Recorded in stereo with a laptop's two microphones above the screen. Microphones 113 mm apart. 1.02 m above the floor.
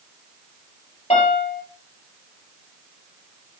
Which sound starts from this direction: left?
A piano, at 1.1 s.